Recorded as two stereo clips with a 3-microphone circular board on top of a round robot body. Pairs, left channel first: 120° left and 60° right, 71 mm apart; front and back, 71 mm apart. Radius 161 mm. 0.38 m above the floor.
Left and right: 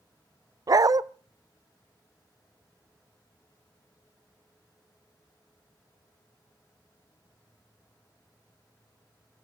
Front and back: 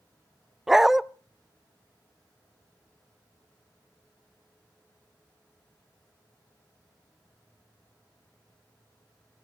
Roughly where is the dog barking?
Right.